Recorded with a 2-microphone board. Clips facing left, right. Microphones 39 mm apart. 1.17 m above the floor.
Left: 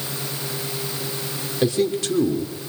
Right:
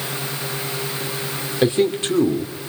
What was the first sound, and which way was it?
A man speaking, 30° right (ahead or behind).